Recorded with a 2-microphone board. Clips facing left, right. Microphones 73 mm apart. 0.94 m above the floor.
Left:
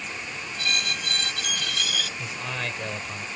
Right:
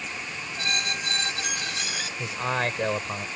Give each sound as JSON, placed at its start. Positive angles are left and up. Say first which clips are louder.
{"t": 0.6, "sound": "a squeak", "louder": "even", "side_deg": -30}
{"t": 2.2, "sound": "a man speaking", "louder": "right 5 dB", "side_deg": -40}